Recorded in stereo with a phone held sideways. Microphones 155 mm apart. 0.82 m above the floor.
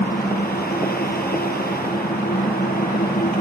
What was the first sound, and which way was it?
A fan, 80° left.